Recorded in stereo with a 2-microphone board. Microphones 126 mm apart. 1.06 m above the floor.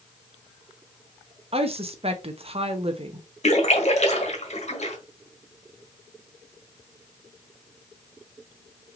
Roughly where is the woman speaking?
Right.